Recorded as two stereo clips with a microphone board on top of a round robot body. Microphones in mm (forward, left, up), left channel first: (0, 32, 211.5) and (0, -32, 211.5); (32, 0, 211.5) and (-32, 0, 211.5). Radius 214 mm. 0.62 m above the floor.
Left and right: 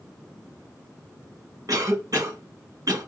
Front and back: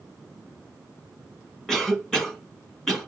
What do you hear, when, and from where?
1.7 s a cough: 80° right, 1.8 m